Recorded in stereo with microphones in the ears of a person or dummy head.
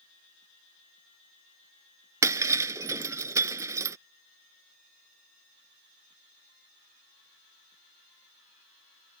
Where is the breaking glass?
15° right (ahead or behind).